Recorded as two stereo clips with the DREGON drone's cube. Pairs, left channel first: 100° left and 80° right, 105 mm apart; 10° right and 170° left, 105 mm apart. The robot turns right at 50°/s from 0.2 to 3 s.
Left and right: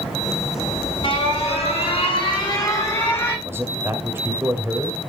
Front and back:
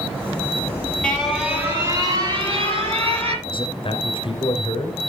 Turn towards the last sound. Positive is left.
turn(degrees=-15)